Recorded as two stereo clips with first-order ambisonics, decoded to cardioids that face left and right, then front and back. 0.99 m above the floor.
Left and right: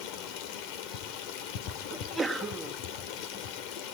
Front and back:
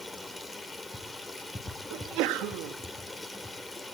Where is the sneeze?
175° right, 2 m.